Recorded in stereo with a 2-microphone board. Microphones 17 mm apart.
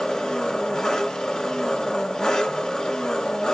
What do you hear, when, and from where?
0.0 s an engine running: 35° left (ahead or behind), 1.5 m